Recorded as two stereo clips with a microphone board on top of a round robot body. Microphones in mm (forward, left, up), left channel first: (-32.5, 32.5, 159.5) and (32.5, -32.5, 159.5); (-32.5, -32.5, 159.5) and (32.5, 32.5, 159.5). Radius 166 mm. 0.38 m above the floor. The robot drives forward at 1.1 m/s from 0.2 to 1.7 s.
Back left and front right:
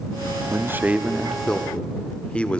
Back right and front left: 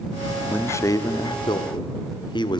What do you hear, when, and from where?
0.5 s a man speaking: 80° right, 1.3 m; by 2.6 s 150° right, 1.7 m